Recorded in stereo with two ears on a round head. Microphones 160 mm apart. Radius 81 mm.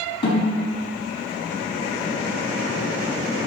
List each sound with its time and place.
0.2 s a snare drum: 30° left (ahead or behind), 4.5 m